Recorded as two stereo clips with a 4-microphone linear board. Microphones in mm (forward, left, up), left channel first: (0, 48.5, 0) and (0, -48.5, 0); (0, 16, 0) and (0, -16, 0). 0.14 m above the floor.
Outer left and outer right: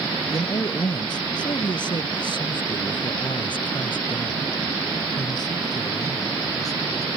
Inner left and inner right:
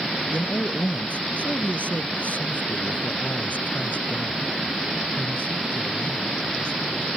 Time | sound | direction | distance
0.3 | a man speaking | 45° left (ahead or behind) | ?